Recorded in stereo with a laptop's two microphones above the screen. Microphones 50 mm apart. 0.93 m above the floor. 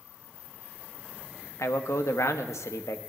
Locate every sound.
1.6 s a man speaking: 80° left, 0.9 m